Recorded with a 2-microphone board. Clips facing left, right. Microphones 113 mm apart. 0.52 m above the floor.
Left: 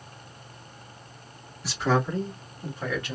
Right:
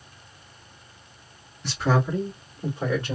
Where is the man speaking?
5° left (ahead or behind), 1.3 m; by 3.2 s 30° right (ahead or behind), 1.5 m.